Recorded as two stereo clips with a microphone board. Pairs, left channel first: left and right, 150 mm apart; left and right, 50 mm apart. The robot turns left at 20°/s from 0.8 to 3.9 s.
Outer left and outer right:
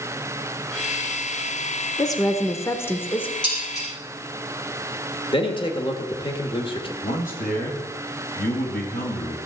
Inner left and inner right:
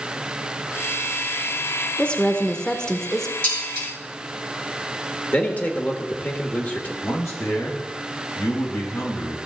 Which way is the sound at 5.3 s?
35° left (ahead or behind).